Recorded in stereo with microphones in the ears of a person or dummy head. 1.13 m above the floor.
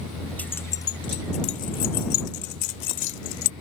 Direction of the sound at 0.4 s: 5° left (ahead or behind).